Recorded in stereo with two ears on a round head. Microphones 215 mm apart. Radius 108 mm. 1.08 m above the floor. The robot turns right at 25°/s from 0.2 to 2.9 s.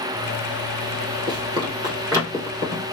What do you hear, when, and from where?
1.3 s running footsteps: 20° right (ahead or behind), 1.6 m; by 2.8 s 5° right (ahead or behind), 2.5 m